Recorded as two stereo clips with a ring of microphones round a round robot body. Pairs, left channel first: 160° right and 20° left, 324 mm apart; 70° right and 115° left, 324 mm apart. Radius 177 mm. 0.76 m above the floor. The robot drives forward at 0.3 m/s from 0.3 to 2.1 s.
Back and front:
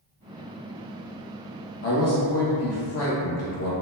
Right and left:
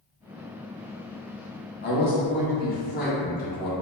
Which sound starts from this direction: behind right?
A man speaking, at 1.8 s.